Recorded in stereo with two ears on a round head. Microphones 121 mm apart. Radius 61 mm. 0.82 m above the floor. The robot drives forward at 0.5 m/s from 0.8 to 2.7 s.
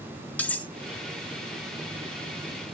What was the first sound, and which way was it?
Cutlery clinking, 10° left (ahead or behind).